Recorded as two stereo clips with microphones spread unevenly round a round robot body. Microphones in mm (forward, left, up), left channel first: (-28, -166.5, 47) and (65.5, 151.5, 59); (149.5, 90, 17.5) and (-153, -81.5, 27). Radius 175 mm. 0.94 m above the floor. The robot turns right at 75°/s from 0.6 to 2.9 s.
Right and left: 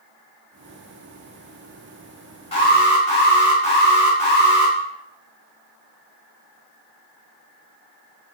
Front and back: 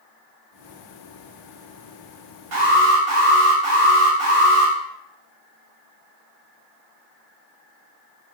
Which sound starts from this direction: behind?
An alarm, at 2.5 s.